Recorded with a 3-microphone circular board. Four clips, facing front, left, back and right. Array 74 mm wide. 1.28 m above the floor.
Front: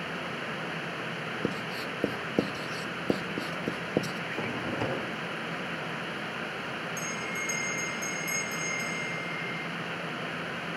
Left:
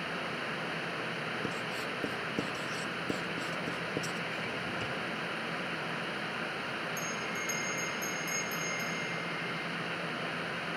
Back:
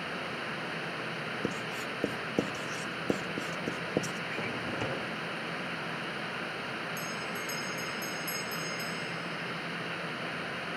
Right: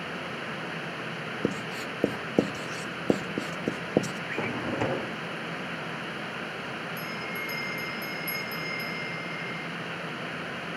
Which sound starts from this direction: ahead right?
A bell, at 7.0 s.